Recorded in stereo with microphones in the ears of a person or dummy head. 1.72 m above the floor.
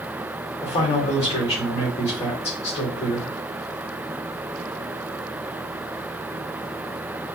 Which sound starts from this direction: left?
A man speaking, at 0.6 s.